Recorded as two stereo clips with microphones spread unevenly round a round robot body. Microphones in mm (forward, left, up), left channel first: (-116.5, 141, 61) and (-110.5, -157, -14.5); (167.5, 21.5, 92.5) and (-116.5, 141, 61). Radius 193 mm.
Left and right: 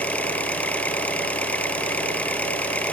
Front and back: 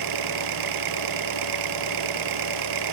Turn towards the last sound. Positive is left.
turn(degrees=175)